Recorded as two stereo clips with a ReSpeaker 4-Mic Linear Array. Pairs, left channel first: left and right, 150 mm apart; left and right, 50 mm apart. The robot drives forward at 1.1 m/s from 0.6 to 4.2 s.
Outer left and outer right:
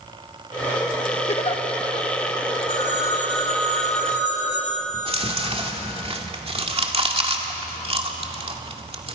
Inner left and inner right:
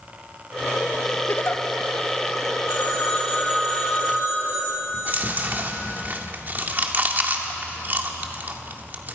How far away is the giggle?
About 1.1 m.